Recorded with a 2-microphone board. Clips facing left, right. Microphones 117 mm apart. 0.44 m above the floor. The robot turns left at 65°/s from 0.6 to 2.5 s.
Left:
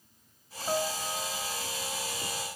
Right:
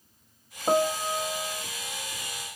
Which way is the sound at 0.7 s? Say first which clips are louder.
Right 7 dB; 85° right.